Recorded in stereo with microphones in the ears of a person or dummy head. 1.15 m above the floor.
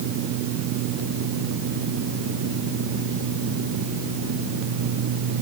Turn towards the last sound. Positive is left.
No sound to turn to.